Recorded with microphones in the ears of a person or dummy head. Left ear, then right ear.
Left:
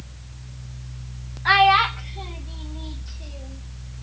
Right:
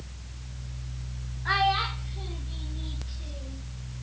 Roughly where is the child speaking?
Left.